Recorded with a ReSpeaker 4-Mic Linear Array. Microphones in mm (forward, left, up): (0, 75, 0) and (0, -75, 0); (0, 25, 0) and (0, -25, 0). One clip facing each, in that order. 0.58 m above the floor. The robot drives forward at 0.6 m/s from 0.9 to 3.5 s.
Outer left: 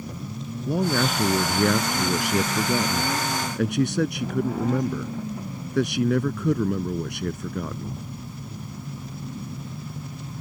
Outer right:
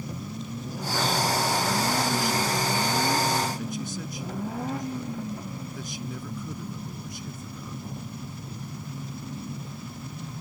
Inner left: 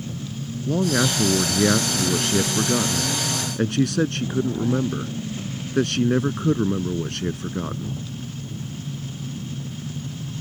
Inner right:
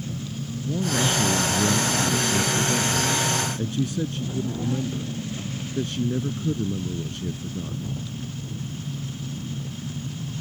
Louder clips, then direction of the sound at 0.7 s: Outer left 7 dB, inner left 4 dB; 65° left (ahead or behind).